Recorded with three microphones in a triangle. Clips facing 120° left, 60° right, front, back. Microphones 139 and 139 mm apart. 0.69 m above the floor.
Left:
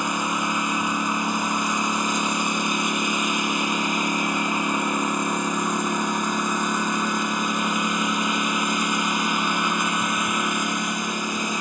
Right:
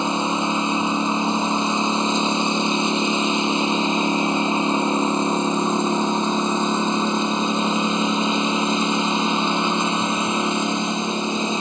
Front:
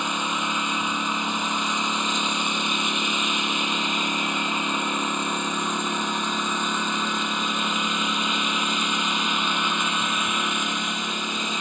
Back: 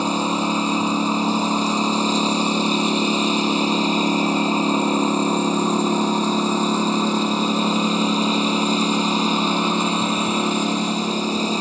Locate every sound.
0.0 s a lawn mower: 125° right